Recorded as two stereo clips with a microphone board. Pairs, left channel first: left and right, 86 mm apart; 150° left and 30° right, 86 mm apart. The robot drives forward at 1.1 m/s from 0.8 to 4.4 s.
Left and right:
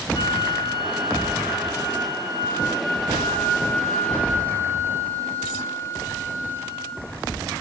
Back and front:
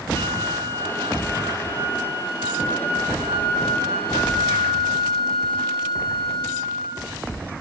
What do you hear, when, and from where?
0.1 s a flute: 90° left, 2.5 m; by 7.1 s 155° left, 4.5 m